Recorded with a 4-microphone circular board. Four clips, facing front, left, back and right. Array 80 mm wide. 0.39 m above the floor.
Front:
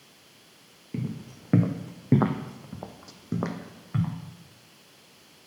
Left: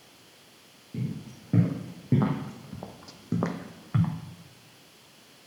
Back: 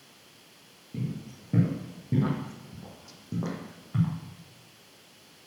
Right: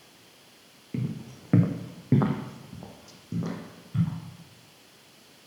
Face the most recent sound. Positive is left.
turn(degrees=70)